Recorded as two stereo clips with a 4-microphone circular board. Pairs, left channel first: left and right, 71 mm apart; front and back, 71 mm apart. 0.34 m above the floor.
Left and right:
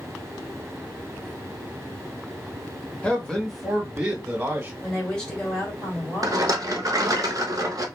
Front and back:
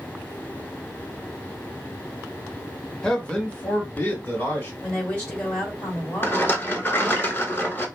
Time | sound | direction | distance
3.0 | a man speaking | 65° left | 0.8 m
4.8 | a woman speaking | 35° left | 1.6 m
6.2 | a rattle | 55° right | 0.6 m